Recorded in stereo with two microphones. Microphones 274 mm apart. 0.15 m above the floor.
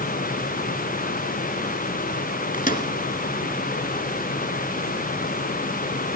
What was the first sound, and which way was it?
A microwave, 30° left (ahead or behind).